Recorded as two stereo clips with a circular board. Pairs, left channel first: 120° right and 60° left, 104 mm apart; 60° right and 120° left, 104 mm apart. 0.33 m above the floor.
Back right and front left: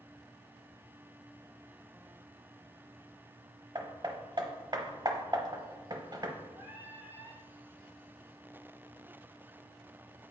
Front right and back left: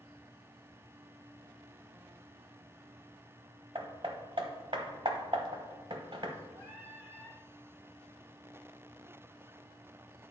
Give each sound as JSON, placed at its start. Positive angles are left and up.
{"t": 3.8, "sound": "hammering", "azimuth_deg": 100, "distance_m": 0.9}
{"t": 6.5, "sound": "singing", "azimuth_deg": 110, "distance_m": 3.0}